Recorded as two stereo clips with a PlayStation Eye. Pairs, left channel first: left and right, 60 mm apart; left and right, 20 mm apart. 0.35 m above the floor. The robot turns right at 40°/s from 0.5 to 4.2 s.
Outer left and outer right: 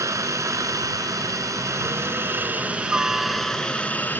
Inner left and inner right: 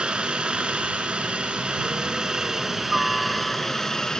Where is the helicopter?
110° right; by 4.2 s 35° left.